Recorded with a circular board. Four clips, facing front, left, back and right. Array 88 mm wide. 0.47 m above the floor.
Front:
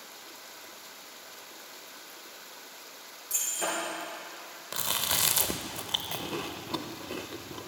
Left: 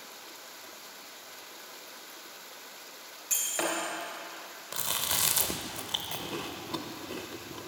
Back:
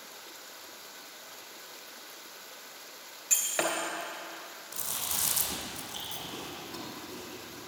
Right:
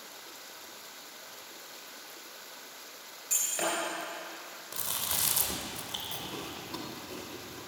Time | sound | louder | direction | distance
3.3 | breaking glass | left 1 dB, back 2 dB | 165° left | 3 m
4.7 | chewing | left 4 dB, front 8 dB | 25° left | 0.7 m